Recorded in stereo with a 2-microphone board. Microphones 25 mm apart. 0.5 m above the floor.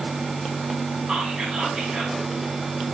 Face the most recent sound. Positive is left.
turn(degrees=-40)  # may be behind; listen again after turning